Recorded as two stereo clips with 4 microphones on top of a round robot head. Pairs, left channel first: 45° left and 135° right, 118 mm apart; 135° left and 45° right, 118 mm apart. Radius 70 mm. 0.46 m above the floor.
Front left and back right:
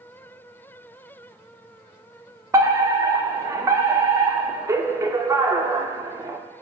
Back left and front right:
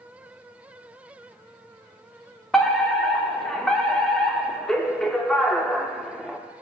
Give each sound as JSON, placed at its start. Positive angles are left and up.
{"t": 2.5, "sound": "a fire alarm", "azimuth_deg": -145, "distance_m": 1.8}